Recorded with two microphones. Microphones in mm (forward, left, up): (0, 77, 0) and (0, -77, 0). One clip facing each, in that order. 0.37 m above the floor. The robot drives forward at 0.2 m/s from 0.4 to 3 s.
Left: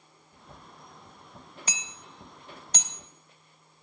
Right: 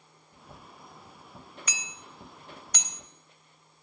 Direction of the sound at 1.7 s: 30° left (ahead or behind).